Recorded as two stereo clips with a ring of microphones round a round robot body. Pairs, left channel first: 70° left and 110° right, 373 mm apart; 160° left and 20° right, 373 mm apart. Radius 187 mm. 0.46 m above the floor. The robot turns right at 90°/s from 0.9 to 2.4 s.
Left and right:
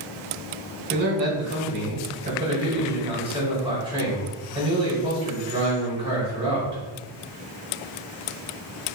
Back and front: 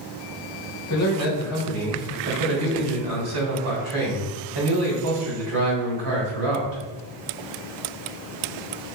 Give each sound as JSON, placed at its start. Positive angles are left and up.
{"t": 0.9, "sound": "a man speaking", "azimuth_deg": -175, "distance_m": 2.0}